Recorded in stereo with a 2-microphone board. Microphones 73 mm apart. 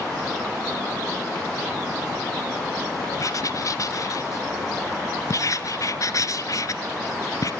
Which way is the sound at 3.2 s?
55° left (ahead or behind).